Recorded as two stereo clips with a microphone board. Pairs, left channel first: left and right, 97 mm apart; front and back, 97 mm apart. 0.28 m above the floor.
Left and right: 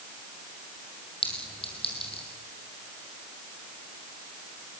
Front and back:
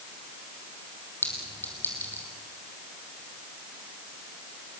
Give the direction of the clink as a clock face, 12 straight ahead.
10 o'clock.